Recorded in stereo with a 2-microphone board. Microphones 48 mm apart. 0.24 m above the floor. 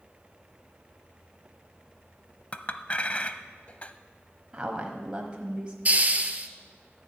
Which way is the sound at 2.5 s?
30° left (ahead or behind).